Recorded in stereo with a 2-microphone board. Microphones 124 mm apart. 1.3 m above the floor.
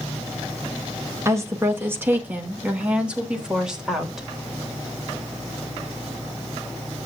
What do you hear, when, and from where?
1.2 s a woman speaking: 25° right (ahead or behind), 2.5 m; by 4.2 s 5° right (ahead or behind), 3.5 m